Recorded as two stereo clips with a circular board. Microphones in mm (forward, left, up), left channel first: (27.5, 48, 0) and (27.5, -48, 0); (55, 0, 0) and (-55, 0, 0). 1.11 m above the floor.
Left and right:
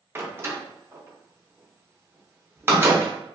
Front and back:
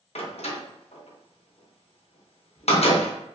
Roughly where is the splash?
I don't hear a splash.